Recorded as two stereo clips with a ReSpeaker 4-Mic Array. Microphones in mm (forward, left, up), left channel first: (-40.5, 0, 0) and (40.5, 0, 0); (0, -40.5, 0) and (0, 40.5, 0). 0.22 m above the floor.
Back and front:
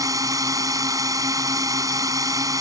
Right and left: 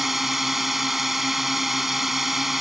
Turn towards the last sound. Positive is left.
turn(degrees=5)